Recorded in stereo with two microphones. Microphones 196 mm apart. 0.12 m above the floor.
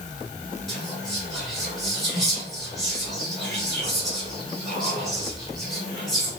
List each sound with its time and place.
0.7 s whispering: centre (ahead or behind), 1.5 m